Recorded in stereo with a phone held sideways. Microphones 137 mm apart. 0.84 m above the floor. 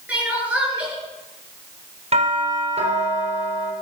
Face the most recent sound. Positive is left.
turn(degrees=-60)  # may be behind; listen again after turning